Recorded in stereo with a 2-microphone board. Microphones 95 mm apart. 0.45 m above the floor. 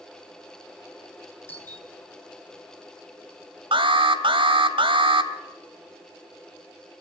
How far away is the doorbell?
About 9 m.